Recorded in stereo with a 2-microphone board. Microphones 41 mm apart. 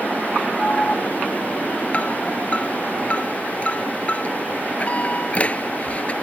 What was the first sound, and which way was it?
An alarm, 30° left (ahead or behind).